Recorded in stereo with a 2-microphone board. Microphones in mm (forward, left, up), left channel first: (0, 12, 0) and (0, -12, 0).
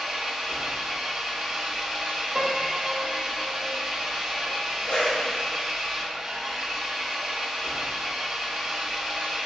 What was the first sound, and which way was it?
An engine running, 15° right (ahead or behind).